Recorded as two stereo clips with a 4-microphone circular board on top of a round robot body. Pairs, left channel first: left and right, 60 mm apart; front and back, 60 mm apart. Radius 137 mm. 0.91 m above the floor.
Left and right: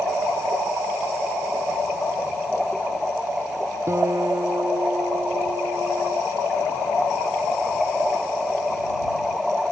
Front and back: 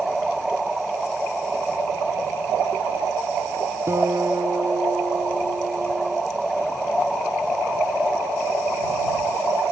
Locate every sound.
3.9 s a guitar: 135° right